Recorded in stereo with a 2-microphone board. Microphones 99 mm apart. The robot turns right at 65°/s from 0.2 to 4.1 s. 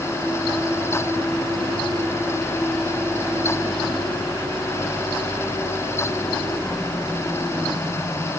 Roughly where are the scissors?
I don't hear scissors.